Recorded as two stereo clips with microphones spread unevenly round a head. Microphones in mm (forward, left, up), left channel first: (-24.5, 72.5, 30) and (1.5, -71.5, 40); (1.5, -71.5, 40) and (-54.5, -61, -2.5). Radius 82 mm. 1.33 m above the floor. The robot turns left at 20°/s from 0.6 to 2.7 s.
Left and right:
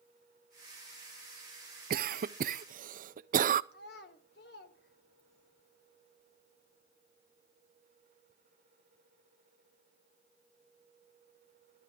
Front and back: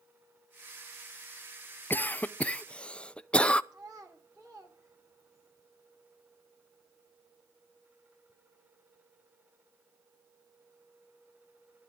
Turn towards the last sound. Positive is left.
turn(degrees=80)